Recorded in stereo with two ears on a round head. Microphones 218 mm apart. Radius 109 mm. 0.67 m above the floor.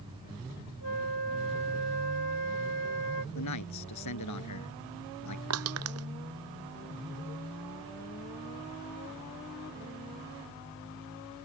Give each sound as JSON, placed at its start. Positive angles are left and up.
{"t": 0.8, "sound": "a flute", "side_deg": 75}
{"t": 3.4, "sound": "a man speaking", "side_deg": 85}
{"t": 5.5, "sound": "crushing", "side_deg": -65}